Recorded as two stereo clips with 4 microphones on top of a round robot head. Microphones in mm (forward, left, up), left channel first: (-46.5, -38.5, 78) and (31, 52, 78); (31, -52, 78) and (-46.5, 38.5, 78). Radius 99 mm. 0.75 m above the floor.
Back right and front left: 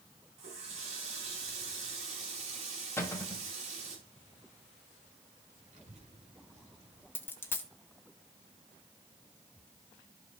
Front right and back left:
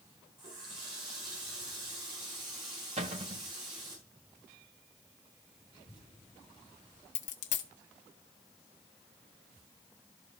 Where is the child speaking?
75° left, 4.5 m.